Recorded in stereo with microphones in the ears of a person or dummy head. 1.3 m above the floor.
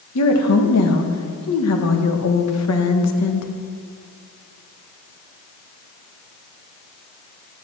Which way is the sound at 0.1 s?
75° left (ahead or behind).